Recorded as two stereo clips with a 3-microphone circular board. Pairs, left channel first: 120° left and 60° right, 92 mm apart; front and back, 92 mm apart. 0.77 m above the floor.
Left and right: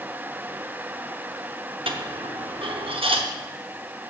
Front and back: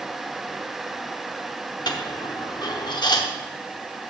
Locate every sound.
1.9 s a dropped coin: 40° right, 0.8 m